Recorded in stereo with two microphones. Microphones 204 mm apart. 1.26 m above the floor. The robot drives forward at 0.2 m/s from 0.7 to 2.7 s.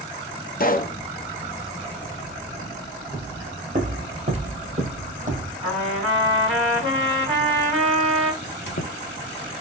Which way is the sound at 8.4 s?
60° left (ahead or behind).